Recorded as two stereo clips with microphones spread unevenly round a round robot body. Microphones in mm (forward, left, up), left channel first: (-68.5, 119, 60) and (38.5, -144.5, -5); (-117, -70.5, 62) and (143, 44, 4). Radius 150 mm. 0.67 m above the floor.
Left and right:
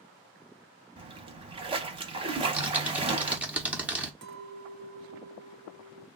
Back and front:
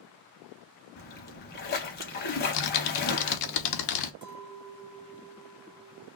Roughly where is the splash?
Behind right.